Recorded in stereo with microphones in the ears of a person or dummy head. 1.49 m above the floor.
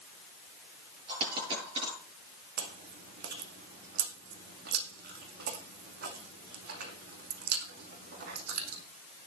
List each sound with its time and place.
1.1 s a dropped coin: 30° right (ahead or behind), 8.5 m
2.6 s chewing: 60° right (ahead or behind), 2 m